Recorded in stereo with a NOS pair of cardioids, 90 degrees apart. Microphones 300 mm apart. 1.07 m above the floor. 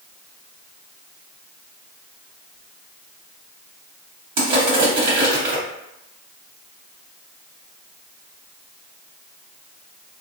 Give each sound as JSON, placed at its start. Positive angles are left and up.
{"t": 4.4, "sound": "crushing", "azimuth_deg": -60, "distance_m": 1.6}